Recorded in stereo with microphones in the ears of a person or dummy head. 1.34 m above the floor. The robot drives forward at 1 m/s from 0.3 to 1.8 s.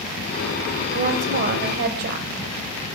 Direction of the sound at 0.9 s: 50° right (ahead or behind).